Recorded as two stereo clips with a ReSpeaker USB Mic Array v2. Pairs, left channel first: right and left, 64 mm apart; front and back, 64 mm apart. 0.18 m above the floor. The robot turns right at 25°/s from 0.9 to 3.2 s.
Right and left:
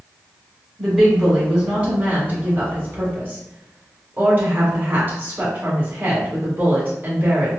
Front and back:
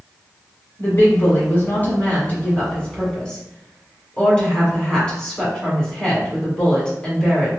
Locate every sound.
0.8 s a woman speaking: 5° left, 1.6 m; by 7.5 s 65° left, 1.6 m